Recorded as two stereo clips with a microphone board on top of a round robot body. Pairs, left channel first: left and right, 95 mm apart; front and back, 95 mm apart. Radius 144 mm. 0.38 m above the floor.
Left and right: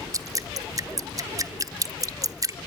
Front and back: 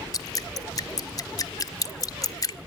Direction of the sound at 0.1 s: 45° right.